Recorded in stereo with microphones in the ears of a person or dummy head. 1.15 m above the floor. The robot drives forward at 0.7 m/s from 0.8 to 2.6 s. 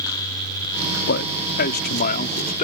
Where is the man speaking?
60° left (ahead or behind); by 2.6 s 45° left (ahead or behind).